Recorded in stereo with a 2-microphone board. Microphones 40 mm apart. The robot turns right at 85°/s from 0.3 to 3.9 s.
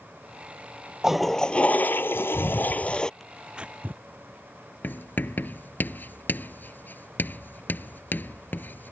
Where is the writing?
50° left (ahead or behind).